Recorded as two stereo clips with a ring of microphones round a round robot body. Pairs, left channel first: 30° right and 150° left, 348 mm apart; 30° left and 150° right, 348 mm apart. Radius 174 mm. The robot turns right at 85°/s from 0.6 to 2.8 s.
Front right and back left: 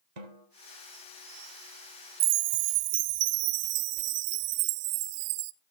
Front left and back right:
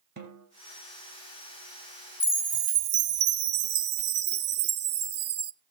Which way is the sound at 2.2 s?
110° left.